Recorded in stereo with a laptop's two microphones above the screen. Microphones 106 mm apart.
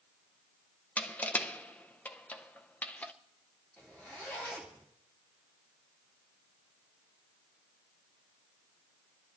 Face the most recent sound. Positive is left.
turn(degrees=20)  # may be behind; listen again after turning